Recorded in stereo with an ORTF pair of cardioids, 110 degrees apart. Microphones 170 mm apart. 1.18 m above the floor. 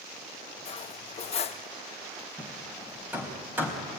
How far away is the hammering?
About 4.5 m.